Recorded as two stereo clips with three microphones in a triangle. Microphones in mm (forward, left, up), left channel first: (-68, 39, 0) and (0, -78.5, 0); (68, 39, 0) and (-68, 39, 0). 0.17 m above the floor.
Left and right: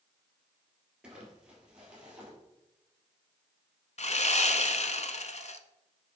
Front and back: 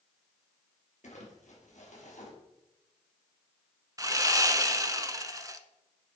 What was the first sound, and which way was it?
Crumpling, 25° left.